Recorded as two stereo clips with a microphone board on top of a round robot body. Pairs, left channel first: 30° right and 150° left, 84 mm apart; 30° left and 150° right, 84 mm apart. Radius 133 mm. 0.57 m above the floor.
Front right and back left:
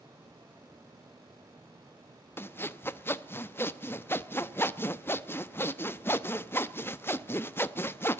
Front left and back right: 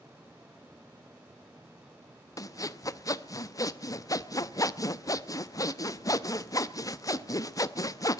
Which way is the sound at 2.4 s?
20° left.